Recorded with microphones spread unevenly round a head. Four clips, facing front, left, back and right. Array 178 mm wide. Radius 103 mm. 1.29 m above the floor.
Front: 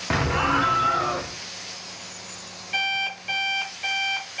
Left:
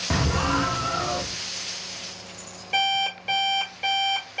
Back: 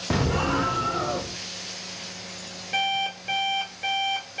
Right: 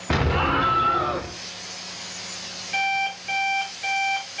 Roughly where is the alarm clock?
Behind left.